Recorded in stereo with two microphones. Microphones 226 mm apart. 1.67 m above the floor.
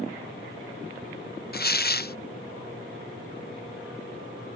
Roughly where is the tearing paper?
Left.